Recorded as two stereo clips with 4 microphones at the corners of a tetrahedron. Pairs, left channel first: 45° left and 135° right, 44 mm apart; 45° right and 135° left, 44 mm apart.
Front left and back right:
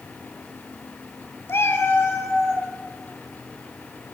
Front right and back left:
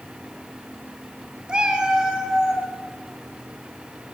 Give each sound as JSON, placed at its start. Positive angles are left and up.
{"t": 1.5, "sound": "a cat meowing", "azimuth_deg": 70, "distance_m": 1.3}